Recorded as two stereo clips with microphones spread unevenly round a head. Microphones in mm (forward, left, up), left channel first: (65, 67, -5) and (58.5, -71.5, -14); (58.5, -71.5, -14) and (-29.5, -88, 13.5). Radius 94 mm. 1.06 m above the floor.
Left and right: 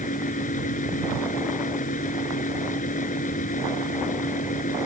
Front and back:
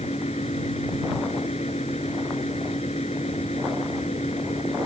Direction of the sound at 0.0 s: 70° left.